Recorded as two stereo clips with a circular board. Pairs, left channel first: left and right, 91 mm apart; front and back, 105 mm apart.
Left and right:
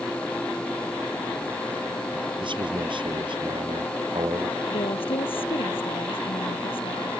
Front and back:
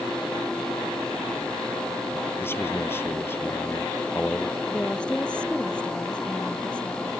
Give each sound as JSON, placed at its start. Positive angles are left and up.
{"t": 2.4, "sound": "a man speaking", "azimuth_deg": -70}
{"t": 4.7, "sound": "a woman speaking", "azimuth_deg": 80}